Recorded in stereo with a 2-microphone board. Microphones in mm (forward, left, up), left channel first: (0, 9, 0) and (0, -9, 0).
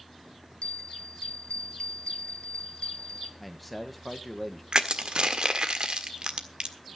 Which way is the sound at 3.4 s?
Centre (ahead or behind).